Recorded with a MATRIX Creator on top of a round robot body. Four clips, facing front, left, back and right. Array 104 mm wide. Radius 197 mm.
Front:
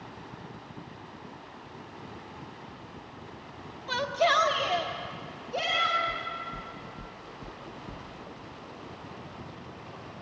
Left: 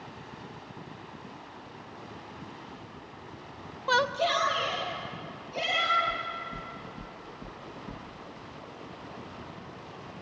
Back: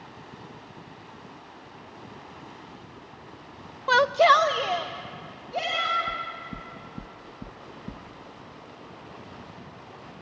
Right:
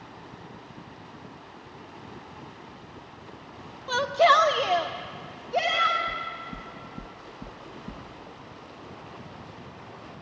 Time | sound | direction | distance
3.9 | a shout | 155° left | 0.6 m
6.1 | knocking | 160° right | 1.0 m